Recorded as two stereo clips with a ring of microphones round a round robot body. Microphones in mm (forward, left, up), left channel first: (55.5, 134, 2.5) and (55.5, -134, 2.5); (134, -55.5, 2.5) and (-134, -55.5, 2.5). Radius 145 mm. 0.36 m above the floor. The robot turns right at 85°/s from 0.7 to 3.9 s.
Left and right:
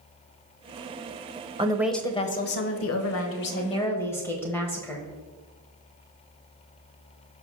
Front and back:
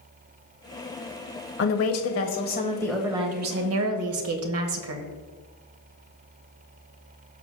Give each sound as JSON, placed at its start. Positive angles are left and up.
{"t": 1.6, "sound": "a woman speaking", "azimuth_deg": -25, "distance_m": 1.3}